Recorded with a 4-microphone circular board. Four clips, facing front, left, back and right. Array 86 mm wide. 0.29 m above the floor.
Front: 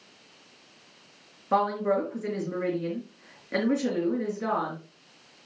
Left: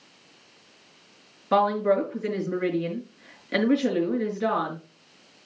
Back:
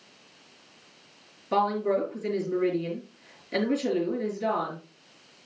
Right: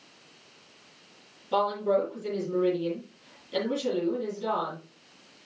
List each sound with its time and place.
1.5 s a woman speaking: 65° left, 4 m